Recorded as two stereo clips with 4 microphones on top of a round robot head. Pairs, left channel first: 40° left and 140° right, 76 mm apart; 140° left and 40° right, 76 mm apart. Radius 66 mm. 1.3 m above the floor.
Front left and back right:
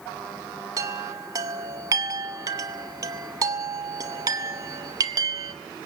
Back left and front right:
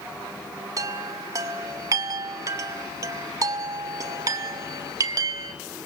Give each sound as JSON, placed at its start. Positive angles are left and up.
{"t": 0.8, "sound": "a chime", "azimuth_deg": -95, "distance_m": 0.8}